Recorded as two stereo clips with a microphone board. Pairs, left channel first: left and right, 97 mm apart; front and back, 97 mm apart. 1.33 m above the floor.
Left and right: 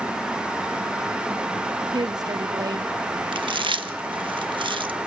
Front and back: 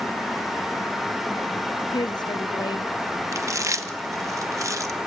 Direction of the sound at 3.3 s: 125° right.